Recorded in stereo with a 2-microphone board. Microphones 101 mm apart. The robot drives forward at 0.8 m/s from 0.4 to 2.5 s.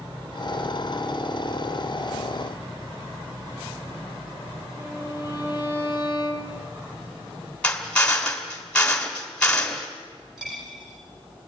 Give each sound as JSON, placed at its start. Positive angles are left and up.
{"t": 4.8, "sound": "a violin", "side_deg": -30, "distance_m": 6.5}
{"t": 7.6, "sound": "a drill", "side_deg": 10, "distance_m": 2.0}
{"t": 10.4, "sound": "a dropped coin", "side_deg": -5, "distance_m": 8.5}